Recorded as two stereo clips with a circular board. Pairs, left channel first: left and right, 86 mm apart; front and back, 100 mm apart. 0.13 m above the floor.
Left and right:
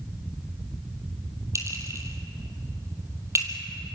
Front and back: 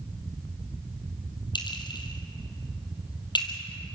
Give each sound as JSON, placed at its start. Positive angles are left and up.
{"t": 1.6, "sound": "a clink", "azimuth_deg": -35, "distance_m": 3.0}